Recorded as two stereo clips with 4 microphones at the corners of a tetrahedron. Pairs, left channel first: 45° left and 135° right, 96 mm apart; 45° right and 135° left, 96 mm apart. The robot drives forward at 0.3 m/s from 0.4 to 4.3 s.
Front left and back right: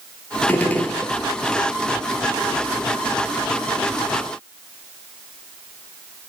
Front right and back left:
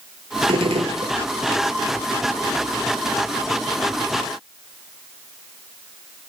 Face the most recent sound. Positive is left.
turn(degrees=145)